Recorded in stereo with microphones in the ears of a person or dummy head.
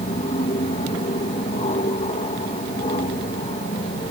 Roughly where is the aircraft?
Left.